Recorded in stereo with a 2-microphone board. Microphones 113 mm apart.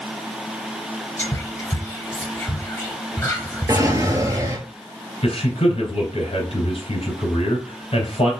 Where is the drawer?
30° right (ahead or behind), 1.0 m.